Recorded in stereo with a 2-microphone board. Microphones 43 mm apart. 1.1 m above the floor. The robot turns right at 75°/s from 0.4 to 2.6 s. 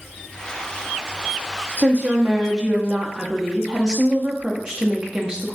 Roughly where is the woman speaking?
Right.